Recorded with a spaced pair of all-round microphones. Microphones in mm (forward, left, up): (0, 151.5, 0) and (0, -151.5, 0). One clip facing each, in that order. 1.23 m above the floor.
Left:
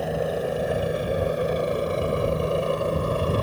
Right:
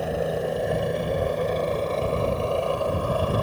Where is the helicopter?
Centre (ahead or behind); by 3.4 s 30° left (ahead or behind).